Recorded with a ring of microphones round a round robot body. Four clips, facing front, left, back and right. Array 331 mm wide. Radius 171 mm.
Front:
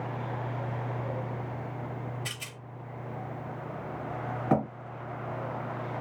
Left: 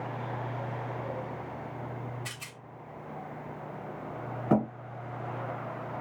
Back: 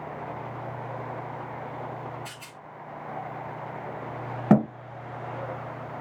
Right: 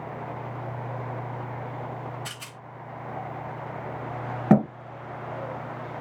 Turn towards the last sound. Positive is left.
turn(degrees=-130)